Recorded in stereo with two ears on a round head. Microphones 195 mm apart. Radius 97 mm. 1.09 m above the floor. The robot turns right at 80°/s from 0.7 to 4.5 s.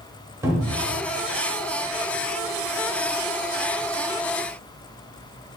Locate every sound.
0.4 s a cupboard door: 10° right (ahead or behind), 0.9 m; by 1.0 s 25° right (ahead or behind), 0.9 m